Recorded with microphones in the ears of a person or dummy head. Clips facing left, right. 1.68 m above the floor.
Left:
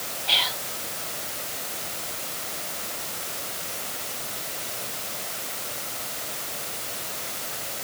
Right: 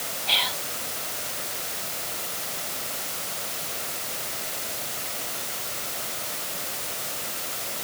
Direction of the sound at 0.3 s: 5° left (ahead or behind).